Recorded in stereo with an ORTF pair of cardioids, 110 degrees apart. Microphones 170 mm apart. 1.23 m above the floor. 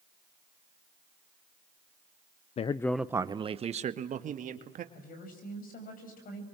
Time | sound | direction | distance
2.6 | a man speaking | 40° left | 0.6 m
4.9 | a woman speaking | 55° left | 7 m